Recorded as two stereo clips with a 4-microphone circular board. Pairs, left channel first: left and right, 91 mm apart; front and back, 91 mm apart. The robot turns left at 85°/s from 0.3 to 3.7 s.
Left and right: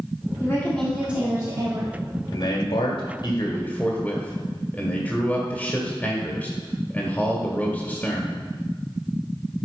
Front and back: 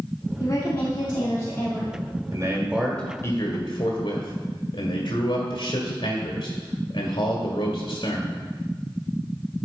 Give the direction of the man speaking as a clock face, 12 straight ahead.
7 o'clock.